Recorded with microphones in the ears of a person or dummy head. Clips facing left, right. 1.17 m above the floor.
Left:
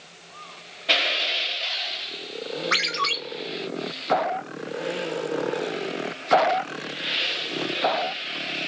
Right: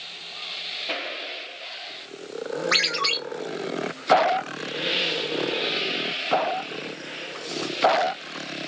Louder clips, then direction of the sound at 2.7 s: Right 1 dB; centre (ahead or behind).